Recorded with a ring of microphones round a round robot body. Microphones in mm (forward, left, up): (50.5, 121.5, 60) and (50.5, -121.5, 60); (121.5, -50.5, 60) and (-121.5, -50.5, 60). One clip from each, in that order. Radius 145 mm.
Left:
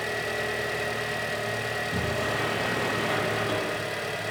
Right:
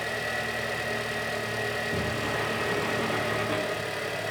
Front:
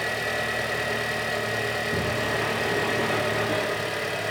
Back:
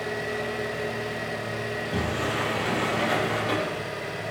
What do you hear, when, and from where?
0.0 s an engine running: 5° right, 2.0 m
1.7 s a sliding door: 150° left, 8 m